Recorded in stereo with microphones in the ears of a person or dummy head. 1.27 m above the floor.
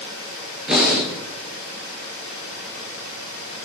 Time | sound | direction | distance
0.7 | breathing | 5° left (ahead or behind) | 4.5 m